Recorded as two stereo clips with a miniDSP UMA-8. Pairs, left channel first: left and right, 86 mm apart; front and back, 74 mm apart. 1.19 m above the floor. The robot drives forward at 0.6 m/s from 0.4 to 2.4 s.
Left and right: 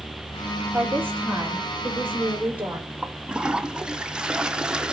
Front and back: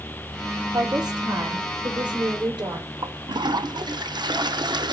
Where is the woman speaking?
160° right, 3.5 m; by 2.9 s 165° right, 4.5 m.